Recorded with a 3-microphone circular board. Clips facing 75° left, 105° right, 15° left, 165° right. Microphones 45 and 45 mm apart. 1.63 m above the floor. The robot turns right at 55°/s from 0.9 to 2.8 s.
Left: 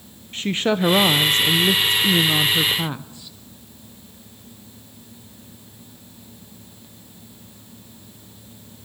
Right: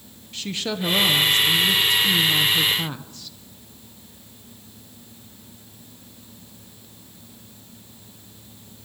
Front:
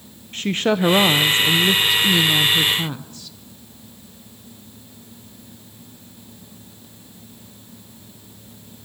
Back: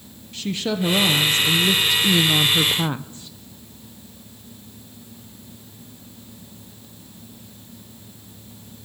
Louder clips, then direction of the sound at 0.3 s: Left 7 dB, front 5 dB; 35° left.